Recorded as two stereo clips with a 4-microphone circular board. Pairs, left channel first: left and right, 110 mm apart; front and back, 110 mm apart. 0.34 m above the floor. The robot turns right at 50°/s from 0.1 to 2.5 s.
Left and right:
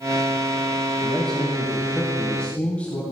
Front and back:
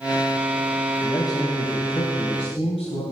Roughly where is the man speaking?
Ahead right.